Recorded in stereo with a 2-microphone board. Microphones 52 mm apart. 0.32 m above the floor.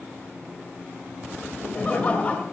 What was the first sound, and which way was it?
Laughter, 30° left (ahead or behind).